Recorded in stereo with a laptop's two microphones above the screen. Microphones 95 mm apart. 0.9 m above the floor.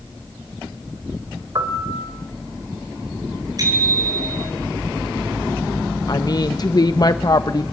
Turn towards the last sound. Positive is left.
turn(degrees=45)  # may be behind; listen again after turning